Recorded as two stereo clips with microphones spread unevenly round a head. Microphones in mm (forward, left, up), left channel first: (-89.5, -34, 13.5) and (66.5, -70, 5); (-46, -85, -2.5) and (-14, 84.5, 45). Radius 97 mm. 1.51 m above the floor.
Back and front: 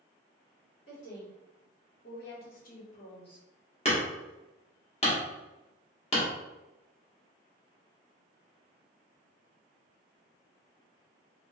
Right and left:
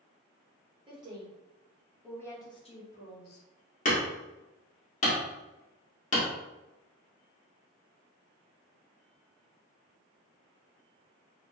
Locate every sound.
0.9 s a woman speaking: 140° left, 1.8 m; by 3.5 s 130° right, 1.3 m
3.9 s hammering: 150° right, 1.6 m